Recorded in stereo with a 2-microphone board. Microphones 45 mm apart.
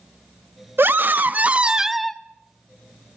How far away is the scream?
About 1.4 m.